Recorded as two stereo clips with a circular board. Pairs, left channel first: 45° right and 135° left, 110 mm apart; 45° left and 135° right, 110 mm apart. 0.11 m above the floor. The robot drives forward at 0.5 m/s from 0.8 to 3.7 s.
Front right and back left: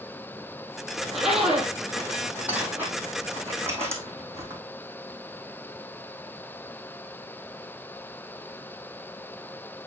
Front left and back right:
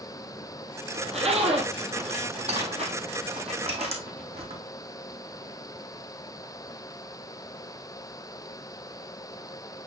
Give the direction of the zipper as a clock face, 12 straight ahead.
4 o'clock.